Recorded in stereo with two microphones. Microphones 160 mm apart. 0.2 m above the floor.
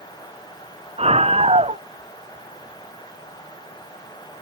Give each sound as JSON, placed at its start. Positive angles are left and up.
{"t": 1.0, "sound": "a scream", "side_deg": -40}